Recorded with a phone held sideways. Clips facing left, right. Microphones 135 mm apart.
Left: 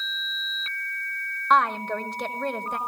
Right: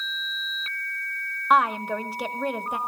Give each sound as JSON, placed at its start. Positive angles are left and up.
{"t": 1.5, "sound": "a woman speaking", "side_deg": -10, "distance_m": 1.1}